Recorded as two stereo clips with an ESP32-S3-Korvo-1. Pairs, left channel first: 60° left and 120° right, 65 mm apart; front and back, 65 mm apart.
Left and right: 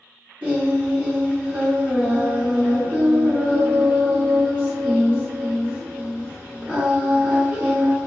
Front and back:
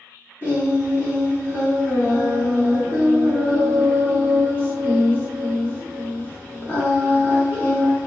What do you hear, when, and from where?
0.4 s singing: 50° right, 1.4 m